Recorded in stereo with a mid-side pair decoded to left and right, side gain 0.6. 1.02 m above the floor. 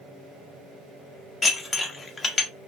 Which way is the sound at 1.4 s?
25° left.